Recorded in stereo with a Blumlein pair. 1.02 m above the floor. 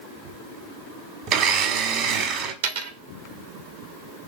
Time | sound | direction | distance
1.3 | a blender | 35° right | 1.0 m
2.6 | a dropped coin | 55° right | 0.8 m